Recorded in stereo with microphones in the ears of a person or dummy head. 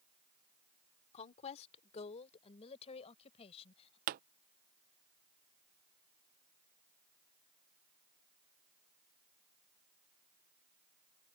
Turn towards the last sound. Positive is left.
turn(degrees=-50)  # may be behind; listen again after turning